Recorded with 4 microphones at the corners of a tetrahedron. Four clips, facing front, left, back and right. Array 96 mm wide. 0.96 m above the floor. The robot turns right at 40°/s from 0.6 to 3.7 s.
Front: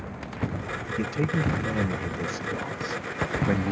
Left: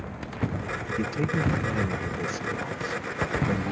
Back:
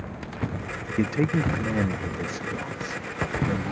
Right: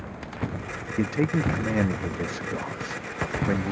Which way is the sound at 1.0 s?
145° right.